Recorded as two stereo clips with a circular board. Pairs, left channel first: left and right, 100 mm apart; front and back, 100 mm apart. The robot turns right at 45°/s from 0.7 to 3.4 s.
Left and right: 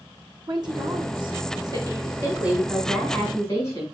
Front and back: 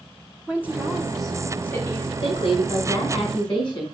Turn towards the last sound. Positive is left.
turn(degrees=30)